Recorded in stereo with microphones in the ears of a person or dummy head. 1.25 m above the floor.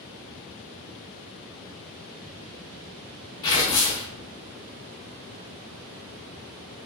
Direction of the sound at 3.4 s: 15° left (ahead or behind).